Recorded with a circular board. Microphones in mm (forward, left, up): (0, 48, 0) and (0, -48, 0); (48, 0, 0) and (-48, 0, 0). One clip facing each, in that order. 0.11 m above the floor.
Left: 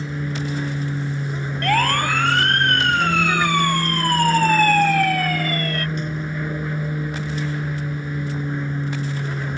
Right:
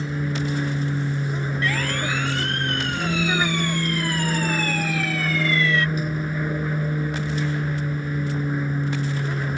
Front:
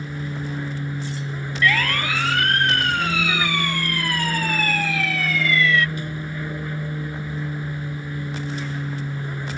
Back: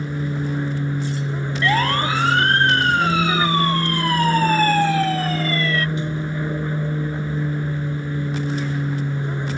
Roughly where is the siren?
Behind left.